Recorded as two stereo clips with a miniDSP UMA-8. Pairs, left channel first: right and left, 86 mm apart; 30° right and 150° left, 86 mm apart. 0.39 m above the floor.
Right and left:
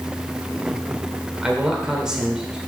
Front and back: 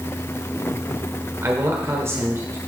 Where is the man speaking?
165° left, 1.4 m.